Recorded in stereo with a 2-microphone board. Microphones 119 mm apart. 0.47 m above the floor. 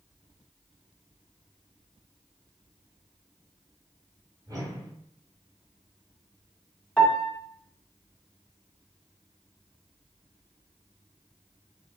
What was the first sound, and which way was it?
A whoosh, 30° right (ahead or behind).